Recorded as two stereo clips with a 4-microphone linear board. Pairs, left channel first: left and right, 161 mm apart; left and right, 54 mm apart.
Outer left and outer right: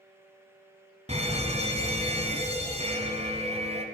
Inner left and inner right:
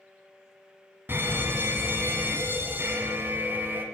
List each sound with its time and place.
1.1 s an alarm: 40° right (ahead or behind), 1.2 m